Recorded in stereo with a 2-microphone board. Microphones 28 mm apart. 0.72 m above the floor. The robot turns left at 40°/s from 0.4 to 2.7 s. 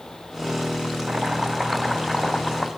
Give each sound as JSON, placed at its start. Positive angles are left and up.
{"t": 1.1, "sound": "chopping", "azimuth_deg": -140, "distance_m": 2.0}